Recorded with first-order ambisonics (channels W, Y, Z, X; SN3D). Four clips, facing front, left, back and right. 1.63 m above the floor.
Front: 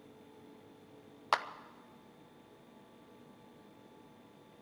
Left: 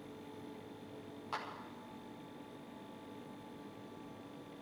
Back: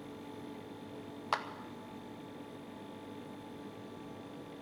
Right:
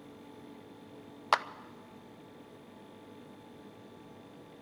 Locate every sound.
1.3 s a clap: 75° right, 0.5 m